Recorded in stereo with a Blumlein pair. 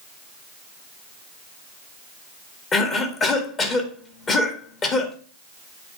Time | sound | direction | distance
2.7 | a cough | 25° left | 1.7 m